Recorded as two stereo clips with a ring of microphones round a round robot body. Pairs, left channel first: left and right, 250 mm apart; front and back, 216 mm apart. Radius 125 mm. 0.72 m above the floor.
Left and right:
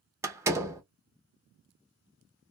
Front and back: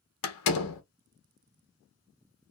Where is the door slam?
10° right, 0.7 m.